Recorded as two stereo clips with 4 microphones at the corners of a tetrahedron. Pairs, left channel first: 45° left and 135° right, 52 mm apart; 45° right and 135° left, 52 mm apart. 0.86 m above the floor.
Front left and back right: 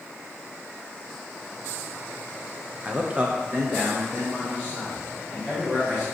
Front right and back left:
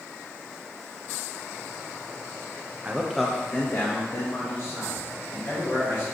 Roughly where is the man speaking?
Behind.